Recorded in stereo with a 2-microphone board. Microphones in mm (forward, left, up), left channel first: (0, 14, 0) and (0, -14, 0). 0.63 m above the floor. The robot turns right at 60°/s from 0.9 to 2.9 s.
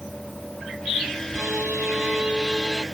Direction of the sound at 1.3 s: 105° right.